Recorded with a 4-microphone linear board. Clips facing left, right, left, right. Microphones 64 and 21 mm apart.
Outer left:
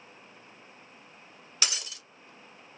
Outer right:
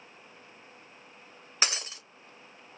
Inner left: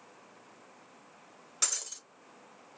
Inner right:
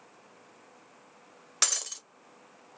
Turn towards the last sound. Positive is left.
turn(degrees=-40)  # may be behind; listen again after turning